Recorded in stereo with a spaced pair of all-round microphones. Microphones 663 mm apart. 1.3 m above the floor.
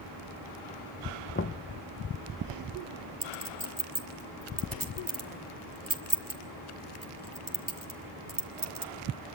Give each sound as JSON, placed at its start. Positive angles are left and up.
{"t": 1.4, "sound": "knocking", "side_deg": 20, "distance_m": 0.5}
{"t": 3.2, "sound": "a clink", "side_deg": -30, "distance_m": 1.9}